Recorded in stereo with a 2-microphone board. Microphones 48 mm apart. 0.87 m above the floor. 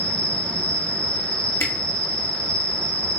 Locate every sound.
0.0 s an insect: 30° left (ahead or behind), 1.0 m
1.6 s a camera shutter: 60° left (ahead or behind), 0.6 m